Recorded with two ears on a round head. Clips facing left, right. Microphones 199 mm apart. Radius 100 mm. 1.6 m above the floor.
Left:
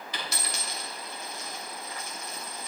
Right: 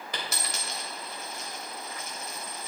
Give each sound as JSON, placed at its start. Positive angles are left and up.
{"t": 0.1, "sound": "a dropped coin", "side_deg": -45, "distance_m": 2.5}